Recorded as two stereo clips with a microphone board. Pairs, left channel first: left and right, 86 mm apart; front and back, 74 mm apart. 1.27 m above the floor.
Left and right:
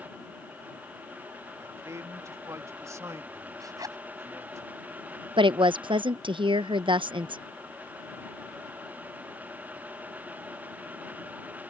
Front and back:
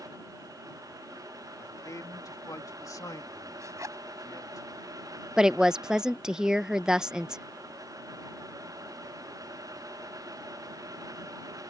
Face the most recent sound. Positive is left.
turn(degrees=-100)